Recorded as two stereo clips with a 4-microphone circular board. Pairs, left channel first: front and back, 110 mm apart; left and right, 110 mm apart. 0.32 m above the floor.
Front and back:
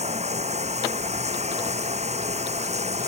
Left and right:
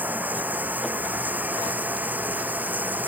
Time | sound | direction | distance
0.0 | running water | 165° right | ?